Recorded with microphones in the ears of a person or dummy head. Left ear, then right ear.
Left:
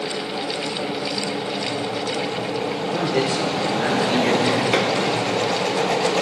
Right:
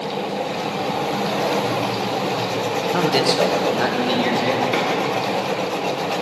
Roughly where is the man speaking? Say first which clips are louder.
Right 4 dB; right.